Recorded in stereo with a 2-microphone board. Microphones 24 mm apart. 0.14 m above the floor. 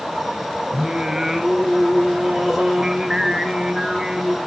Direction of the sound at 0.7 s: 20° right (ahead or behind).